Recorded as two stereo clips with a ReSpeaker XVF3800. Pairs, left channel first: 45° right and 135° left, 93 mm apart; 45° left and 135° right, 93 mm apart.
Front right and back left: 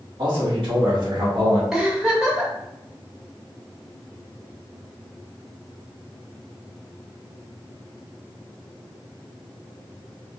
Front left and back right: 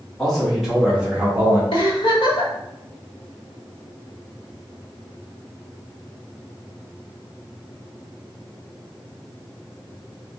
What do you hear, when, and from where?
0.2 s a man speaking: 125° left, 1.3 m; by 1.6 s 170° left, 1.1 m
1.7 s a giggle: 50° left, 1.1 m